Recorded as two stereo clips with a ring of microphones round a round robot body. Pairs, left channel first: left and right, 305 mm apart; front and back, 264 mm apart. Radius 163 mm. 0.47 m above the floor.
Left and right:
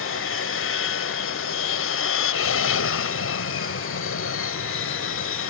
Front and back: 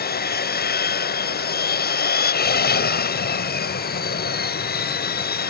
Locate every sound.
0.0 s an aircraft: 50° left